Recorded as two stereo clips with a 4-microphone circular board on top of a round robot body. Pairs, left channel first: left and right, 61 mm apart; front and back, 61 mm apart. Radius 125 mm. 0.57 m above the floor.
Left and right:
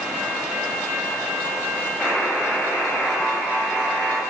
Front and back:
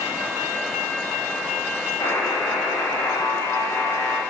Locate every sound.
2.0 s a buzzer: 5° left, 9 m